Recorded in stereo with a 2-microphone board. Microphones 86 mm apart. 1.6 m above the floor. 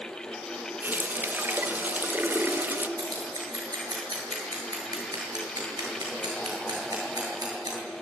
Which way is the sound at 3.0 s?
50° right (ahead or behind).